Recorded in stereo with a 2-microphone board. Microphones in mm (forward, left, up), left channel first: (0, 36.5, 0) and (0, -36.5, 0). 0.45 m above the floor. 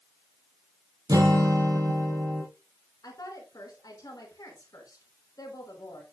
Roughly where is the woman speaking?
Left.